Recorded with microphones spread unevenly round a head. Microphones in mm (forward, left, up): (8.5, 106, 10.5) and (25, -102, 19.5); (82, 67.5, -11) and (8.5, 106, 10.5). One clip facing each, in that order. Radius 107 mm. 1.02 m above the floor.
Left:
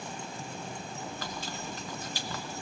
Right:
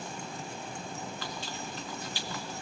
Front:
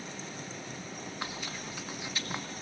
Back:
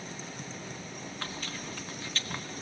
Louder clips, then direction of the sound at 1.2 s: Left 1 dB, even; 45° left.